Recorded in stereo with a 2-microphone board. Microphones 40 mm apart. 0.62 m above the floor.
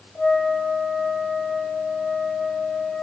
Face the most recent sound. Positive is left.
turn(degrees=50)  # may be behind; listen again after turning